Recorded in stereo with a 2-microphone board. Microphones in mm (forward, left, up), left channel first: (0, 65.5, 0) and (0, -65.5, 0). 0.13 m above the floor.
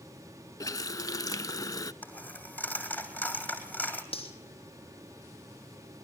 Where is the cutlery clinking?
45° left (ahead or behind), 3.5 m.